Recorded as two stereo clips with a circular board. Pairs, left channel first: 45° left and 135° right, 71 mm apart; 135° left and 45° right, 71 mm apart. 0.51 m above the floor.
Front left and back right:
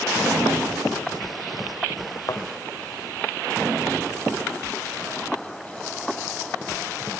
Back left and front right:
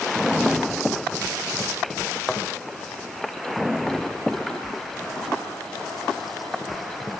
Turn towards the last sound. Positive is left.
turn(degrees=50)